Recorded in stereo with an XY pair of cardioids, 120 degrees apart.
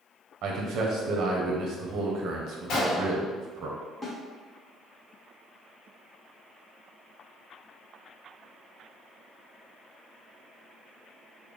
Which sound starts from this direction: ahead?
A snare drum, at 4.0 s.